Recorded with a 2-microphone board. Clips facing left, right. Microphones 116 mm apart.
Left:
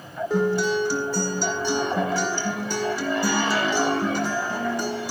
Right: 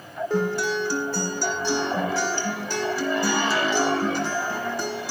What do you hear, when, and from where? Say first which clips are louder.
0.3 s a guitar: left 3 dB; 5° right (ahead or behind), 1.9 m